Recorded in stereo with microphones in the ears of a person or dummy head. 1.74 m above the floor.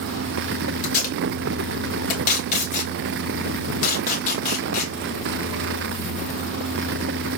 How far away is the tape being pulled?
About 2 m.